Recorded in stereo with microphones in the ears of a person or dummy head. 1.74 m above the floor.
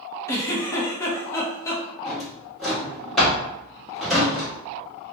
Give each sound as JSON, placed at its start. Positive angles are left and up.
{"t": 0.3, "sound": "a giggle", "side_deg": 15, "distance_m": 0.8}
{"t": 2.0, "sound": "a drawer", "side_deg": 0, "distance_m": 1.5}